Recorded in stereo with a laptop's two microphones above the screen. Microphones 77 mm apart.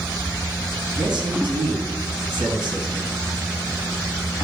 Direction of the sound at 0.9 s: 75° right (ahead or behind).